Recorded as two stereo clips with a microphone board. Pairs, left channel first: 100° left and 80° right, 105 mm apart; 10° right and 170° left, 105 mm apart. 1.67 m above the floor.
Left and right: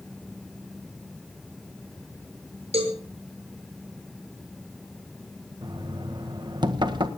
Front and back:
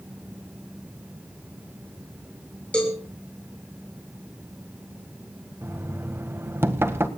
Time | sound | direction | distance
2.7 | a cowbell | 90° right | 6.5 m
5.6 | knocking | 125° right | 1.6 m